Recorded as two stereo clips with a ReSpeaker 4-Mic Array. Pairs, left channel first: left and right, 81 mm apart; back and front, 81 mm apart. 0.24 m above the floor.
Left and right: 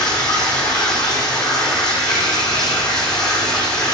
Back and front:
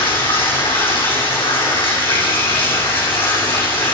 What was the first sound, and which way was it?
Running water, 175° left.